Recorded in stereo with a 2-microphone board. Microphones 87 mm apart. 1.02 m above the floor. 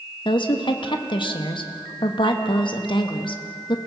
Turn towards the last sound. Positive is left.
turn(degrees=65)  # may be behind; listen again after turning